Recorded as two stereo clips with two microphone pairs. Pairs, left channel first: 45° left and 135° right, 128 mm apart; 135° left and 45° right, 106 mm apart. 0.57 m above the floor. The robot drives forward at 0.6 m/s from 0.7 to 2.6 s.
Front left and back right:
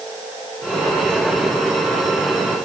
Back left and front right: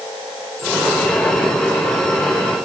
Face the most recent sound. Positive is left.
No sound to turn to.